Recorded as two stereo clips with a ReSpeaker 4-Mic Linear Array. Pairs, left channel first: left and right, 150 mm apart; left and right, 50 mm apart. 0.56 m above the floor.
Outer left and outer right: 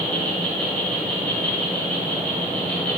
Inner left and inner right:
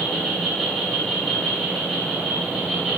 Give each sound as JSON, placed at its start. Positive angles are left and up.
{"t": 0.0, "sound": "an insect", "side_deg": 10, "distance_m": 3.0}